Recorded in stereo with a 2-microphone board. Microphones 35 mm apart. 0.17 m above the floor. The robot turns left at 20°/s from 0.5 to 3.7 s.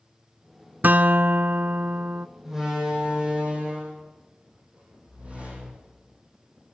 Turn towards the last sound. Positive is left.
turn(degrees=-35)  # may be behind; listen again after turning